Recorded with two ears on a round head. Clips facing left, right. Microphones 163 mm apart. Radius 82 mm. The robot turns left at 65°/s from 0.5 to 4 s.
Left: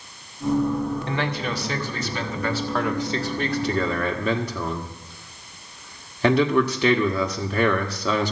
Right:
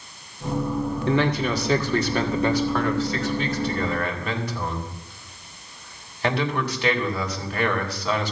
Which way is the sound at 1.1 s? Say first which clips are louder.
Right 5 dB; 70° right.